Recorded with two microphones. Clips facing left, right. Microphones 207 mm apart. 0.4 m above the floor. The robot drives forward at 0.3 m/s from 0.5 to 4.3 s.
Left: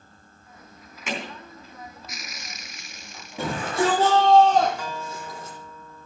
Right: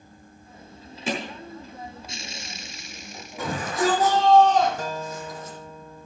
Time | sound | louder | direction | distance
1.1 | hammering | right 3 dB | 35° right (ahead or behind) | 3 m
3.4 | a shout | left 1 dB | 30° left (ahead or behind) | 7.5 m
4.8 | a guitar | right 3 dB | 50° right (ahead or behind) | 0.8 m